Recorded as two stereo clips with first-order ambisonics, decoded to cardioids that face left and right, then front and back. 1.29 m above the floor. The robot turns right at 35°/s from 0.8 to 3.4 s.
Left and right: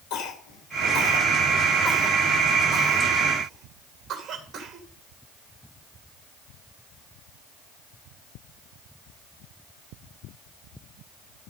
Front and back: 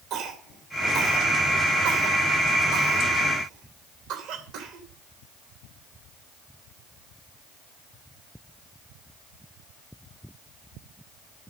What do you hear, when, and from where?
0.1 s a cough: 115° left, 2.5 m; by 4.9 s 155° right, 2.5 m